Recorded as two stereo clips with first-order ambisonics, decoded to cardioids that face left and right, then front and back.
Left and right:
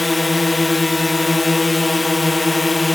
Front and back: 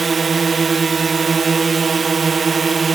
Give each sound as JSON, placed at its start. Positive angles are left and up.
{"t": 0.0, "sound": "a drone", "azimuth_deg": 155}